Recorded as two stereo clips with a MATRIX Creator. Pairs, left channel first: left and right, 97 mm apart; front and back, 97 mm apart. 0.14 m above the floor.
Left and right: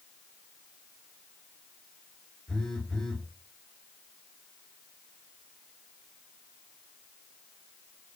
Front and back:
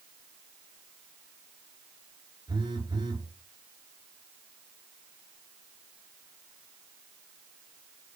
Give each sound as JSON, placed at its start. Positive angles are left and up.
{"t": 2.5, "sound": "a phone buzzing", "azimuth_deg": 170, "distance_m": 2.0}